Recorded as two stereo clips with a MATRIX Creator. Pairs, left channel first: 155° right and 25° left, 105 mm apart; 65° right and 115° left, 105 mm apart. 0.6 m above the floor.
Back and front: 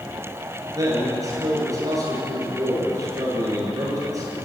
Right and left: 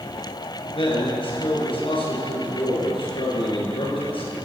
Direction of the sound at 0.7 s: 35° right.